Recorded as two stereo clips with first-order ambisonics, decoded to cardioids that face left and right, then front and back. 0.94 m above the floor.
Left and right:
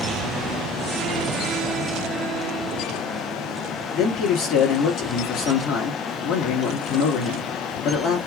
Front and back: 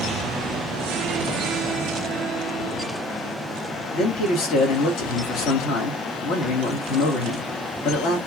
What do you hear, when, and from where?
3.9 s a man speaking: 40° left, 1.8 m